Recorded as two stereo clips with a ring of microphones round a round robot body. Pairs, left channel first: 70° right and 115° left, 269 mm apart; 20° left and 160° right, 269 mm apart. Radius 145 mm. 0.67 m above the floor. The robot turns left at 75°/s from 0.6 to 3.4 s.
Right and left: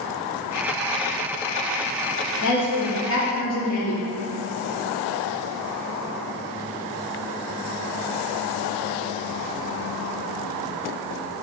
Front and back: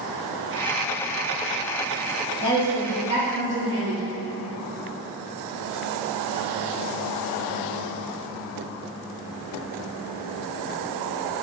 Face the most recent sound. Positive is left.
turn(degrees=-120)